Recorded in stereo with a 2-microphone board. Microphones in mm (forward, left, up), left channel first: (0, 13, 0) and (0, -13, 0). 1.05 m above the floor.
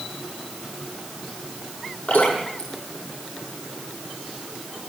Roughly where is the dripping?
Left.